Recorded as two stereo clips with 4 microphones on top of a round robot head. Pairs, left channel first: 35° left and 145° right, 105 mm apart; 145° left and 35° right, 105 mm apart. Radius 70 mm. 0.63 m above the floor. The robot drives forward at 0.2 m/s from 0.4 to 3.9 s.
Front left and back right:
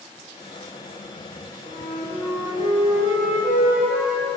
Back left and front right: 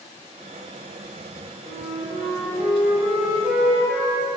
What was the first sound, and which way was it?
A flute, 165° left.